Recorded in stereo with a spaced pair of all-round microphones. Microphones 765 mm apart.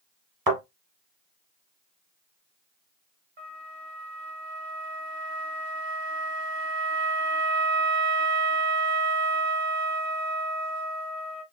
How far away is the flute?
About 1.3 m.